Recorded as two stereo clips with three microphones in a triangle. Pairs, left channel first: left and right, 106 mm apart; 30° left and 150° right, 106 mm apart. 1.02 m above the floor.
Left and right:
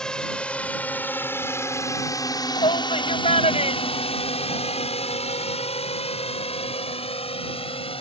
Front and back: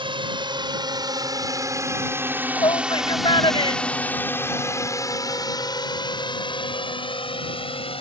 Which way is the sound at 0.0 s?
175° left.